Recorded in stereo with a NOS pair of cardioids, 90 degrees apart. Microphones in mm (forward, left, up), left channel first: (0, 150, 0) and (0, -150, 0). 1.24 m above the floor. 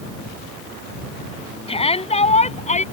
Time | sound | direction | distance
1.7 | a shout | 20° left | ?